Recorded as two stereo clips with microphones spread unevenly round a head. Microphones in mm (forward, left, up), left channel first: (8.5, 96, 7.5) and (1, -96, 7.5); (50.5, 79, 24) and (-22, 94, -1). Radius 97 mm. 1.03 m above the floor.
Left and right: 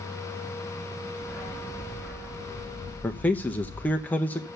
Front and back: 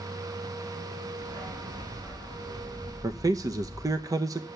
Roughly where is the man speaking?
Behind.